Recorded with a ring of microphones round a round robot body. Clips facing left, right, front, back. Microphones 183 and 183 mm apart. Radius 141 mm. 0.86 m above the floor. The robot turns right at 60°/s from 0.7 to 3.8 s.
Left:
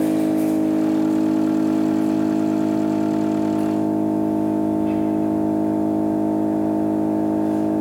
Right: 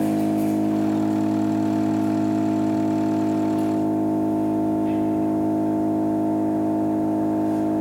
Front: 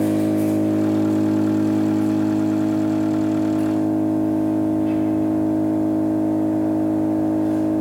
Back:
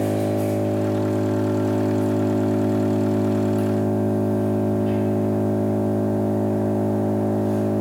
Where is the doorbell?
No doorbell in this recording.